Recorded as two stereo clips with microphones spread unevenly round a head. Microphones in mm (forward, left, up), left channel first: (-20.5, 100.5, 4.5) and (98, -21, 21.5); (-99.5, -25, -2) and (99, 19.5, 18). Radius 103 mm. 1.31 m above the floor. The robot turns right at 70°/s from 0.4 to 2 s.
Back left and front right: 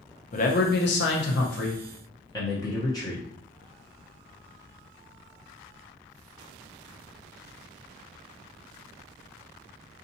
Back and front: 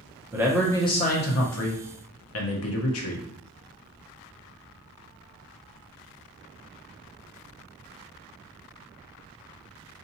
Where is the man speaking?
95° left, 0.9 m; by 3.2 s 155° right, 0.9 m.